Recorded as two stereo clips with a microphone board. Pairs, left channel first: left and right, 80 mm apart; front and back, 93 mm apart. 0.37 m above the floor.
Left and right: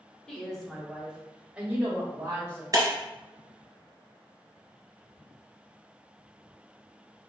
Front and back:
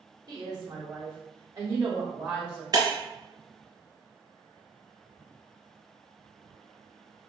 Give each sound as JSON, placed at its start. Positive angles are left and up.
{"t": 0.3, "sound": "a woman speaking", "azimuth_deg": 165, "distance_m": 1.5}
{"t": 2.7, "sound": "breaking glass", "azimuth_deg": -135, "distance_m": 1.5}